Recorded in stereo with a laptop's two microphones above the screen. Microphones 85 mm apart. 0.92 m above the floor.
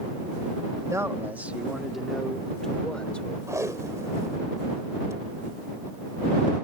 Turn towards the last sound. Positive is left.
turn(degrees=-40)  # may be behind; listen again after turning